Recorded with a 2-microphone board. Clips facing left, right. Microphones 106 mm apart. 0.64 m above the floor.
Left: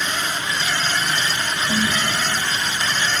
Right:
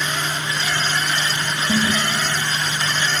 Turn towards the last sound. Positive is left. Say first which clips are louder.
# right 3 dB
turn(degrees=-20)  # may be behind; listen again after turning